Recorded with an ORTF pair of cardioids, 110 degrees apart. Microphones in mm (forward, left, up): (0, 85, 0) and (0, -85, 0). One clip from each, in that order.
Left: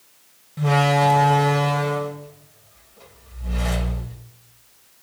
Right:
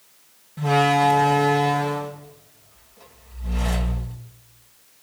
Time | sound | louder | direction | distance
0.6 | a door slam | right 1 dB | 15° left | 3 m